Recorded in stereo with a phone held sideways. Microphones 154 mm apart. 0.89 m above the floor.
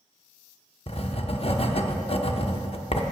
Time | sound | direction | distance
0.9 | writing | 45° left (ahead or behind) | 0.8 m